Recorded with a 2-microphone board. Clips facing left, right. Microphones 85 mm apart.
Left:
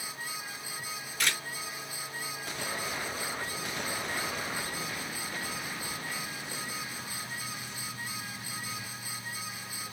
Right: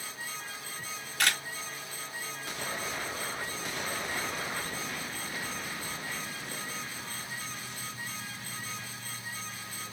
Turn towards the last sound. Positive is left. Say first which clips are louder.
# right 3 dB
turn(degrees=-65)  # may be behind; listen again after turning